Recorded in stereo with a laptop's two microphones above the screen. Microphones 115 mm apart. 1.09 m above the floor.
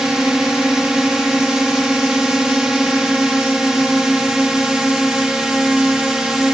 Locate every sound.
0.0 s a drone: 5° right (ahead or behind)